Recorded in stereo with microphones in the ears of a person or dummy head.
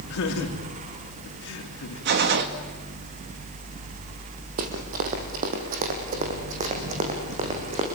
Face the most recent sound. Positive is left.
turn(degrees=-35)  # may be behind; listen again after turning